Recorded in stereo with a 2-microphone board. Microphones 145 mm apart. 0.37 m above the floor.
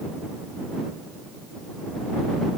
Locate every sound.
Only background noise.